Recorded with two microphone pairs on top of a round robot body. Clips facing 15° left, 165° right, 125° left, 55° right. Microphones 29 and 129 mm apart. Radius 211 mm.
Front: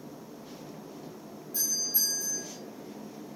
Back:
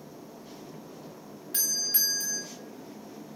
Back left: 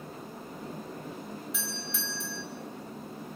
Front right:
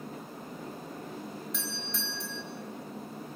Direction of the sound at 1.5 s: 150° right.